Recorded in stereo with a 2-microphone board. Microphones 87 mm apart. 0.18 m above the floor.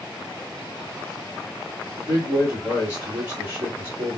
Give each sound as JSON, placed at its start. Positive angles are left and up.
{"t": 2.0, "sound": "a man speaking", "side_deg": -20, "distance_m": 2.0}